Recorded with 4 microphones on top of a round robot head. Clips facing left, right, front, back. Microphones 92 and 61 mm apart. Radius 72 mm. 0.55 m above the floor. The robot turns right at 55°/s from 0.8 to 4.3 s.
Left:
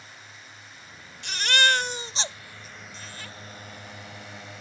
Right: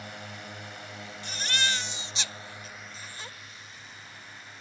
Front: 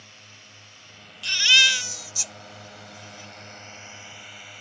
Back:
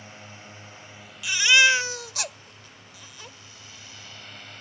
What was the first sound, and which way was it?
A drone, 110° right.